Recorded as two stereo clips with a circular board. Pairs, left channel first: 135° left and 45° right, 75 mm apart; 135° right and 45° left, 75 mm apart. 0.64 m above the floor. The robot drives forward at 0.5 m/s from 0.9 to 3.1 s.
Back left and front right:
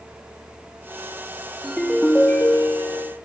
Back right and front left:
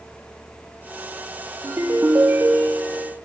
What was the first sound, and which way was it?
A ringtone, 45° left.